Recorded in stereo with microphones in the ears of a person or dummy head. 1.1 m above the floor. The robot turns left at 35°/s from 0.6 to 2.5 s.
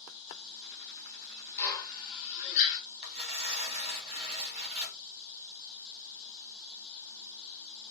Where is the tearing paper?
25° right (ahead or behind), 2 m.